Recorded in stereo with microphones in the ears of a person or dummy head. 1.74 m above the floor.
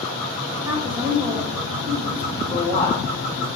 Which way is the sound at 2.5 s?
15° left (ahead or behind).